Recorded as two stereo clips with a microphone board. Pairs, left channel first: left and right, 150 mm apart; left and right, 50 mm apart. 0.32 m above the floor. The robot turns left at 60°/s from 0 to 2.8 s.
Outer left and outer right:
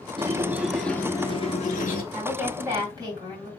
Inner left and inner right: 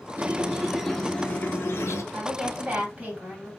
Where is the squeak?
145° right, 0.7 m; by 2.0 s 105° left, 0.7 m.